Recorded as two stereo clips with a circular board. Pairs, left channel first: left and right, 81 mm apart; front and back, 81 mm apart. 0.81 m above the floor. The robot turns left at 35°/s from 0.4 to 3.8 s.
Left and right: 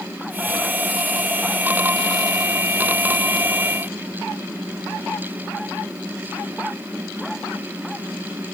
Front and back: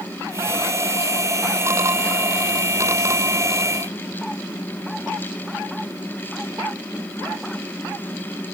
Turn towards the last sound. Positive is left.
No sound to turn to.